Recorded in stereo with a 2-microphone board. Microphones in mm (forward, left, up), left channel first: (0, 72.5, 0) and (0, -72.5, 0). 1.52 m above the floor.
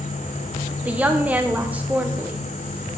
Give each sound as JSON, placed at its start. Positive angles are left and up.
{"t": 0.8, "sound": "a woman speaking", "side_deg": -10, "distance_m": 0.5}